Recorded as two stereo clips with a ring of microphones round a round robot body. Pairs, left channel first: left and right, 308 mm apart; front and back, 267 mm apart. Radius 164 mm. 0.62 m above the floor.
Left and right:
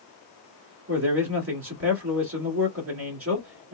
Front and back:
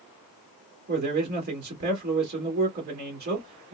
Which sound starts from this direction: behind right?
A man speaking, at 0.9 s.